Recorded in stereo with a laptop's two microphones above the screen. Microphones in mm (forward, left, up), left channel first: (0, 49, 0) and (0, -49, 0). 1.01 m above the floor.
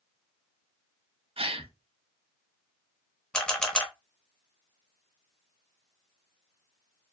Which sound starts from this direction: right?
A gasp, at 1.4 s.